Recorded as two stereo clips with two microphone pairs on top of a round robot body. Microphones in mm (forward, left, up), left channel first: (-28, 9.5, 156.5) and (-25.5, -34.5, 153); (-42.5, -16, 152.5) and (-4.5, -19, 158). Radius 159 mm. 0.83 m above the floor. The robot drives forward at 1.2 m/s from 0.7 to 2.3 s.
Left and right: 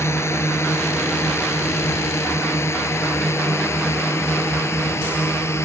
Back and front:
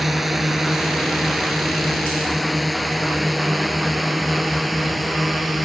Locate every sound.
0.0 s a drone: 85° left